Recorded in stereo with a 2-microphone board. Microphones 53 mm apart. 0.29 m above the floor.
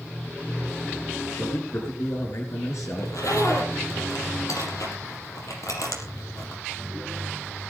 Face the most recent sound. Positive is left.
turn(degrees=80)